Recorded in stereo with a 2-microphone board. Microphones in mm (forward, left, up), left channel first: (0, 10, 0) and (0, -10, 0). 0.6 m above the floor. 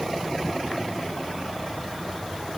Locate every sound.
Only background noise.